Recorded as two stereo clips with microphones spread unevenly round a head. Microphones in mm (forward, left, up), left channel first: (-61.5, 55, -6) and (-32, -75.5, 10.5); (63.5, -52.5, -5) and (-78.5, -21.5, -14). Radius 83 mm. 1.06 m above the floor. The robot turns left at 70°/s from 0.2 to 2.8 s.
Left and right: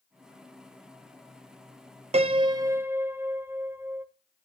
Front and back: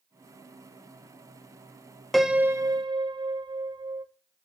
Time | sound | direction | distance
2.1 | a piano | 105° right | 0.8 m